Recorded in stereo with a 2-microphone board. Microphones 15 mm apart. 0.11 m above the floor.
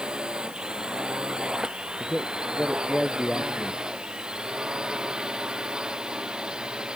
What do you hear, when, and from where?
0.0 s a drone: 80° right; by 7.0 s 75° right (ahead or behind)
2.0 s a man speaking: 65° left (ahead or behind)